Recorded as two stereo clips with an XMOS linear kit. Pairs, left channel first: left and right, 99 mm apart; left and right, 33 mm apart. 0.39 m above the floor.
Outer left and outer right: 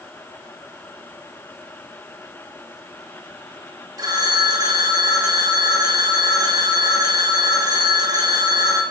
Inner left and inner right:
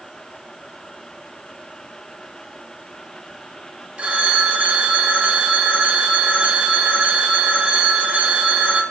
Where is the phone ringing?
40° right (ahead or behind), 0.7 m.